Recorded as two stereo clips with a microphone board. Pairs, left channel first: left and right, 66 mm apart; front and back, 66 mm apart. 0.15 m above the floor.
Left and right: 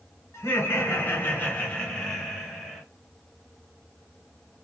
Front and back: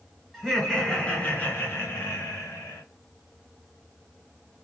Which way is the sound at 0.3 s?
85° left.